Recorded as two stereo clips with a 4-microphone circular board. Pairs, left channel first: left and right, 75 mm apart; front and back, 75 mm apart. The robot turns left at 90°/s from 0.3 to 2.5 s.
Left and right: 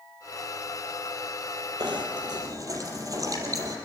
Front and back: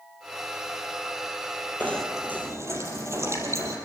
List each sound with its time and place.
1.8 s knocking: 65° right, 4.5 m; by 3.8 s 130° right, 4.5 m